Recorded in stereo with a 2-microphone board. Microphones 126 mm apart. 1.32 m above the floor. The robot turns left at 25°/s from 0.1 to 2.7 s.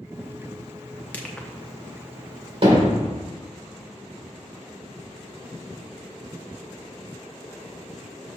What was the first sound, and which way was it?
Crushing, 10° left (ahead or behind).